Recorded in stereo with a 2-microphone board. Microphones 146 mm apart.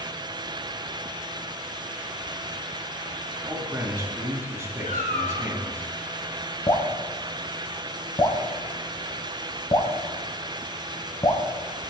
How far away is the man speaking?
About 2.5 m.